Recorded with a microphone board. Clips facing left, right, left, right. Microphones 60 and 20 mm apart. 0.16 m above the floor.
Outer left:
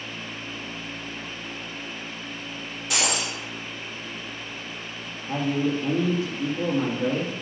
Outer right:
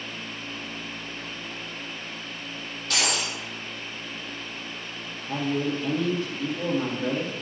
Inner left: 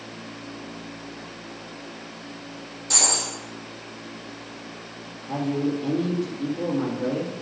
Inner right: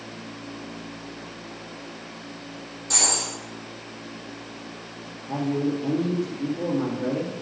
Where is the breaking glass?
10° left (ahead or behind), 3 m.